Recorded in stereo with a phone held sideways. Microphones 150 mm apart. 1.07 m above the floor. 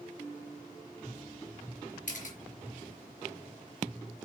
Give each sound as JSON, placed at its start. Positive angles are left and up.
{"t": 2.1, "sound": "a camera shutter", "side_deg": 60, "distance_m": 4.5}